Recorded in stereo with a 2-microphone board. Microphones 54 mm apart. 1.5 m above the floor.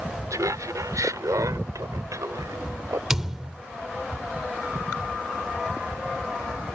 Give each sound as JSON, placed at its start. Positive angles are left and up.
{"t": 0.3, "sound": "laughter", "side_deg": -85}
{"t": 3.1, "sound": "a thud", "side_deg": -10}